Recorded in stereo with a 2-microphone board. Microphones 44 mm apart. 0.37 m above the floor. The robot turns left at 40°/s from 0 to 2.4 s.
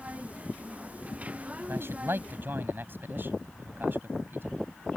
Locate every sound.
1.7 s a man speaking: 60° right (ahead or behind); by 4.6 s 50° right (ahead or behind)